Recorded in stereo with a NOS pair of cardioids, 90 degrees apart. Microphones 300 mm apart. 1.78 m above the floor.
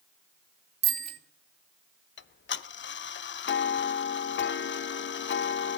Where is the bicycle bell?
35° right, 2.5 m.